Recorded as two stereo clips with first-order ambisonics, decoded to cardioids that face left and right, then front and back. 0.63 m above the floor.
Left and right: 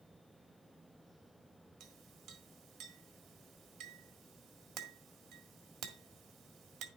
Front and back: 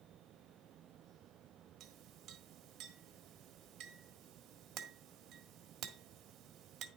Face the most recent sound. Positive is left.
turn(degrees=-130)